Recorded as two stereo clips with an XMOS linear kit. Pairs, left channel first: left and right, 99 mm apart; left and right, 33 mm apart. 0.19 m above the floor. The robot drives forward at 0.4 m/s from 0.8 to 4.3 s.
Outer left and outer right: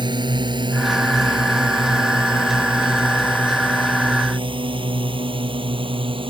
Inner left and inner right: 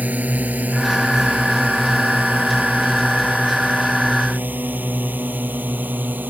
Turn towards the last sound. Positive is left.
turn(degrees=-60)  # may be behind; listen again after turning